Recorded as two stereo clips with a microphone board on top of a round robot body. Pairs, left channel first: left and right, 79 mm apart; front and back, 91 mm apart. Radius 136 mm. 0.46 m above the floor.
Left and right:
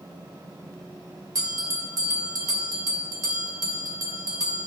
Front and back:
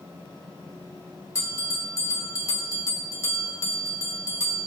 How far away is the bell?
About 1.9 m.